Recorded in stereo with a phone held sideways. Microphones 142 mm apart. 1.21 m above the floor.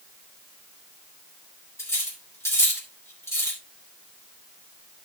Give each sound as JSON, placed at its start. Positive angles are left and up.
{"t": 1.8, "sound": "cutlery clinking", "side_deg": 20, "distance_m": 3.0}